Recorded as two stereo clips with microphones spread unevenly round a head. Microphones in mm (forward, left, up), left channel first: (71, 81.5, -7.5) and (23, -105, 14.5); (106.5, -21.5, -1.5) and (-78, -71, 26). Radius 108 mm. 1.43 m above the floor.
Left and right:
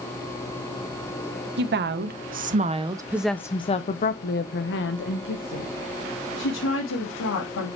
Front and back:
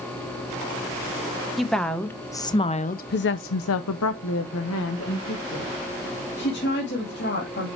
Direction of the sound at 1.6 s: 75° right.